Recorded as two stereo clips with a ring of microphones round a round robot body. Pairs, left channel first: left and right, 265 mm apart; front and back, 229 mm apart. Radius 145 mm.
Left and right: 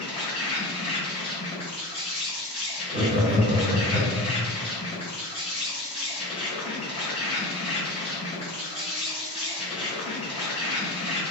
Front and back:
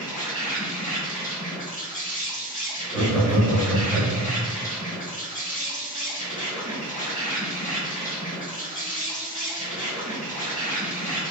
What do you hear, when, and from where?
0.0 s an insect: 30° left, 1.8 m
2.9 s laughter: 65° right, 1.1 m